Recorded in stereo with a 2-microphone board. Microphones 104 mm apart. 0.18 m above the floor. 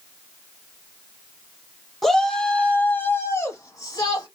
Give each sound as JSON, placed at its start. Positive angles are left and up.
{"t": 2.0, "sound": "a shout", "side_deg": 0, "distance_m": 1.4}